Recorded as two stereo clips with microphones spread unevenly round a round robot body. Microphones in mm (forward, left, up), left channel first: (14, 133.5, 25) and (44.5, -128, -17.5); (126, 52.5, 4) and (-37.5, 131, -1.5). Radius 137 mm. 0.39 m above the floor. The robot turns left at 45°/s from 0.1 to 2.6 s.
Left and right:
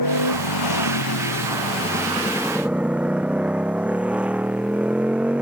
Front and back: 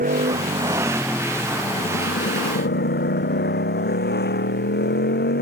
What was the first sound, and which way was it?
A motorcycle, 115° left.